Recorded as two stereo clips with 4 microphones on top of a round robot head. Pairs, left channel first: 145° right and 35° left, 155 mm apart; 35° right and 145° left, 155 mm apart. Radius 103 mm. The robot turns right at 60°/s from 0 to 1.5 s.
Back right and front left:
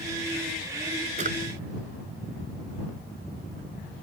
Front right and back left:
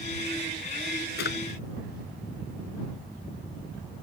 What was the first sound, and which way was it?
A drawer, 15° right.